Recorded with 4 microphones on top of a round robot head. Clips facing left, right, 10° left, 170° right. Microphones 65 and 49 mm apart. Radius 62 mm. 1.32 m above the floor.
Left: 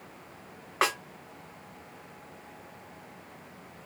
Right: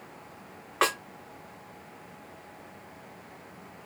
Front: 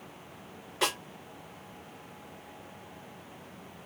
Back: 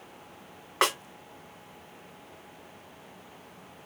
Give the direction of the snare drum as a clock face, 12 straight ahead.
6 o'clock.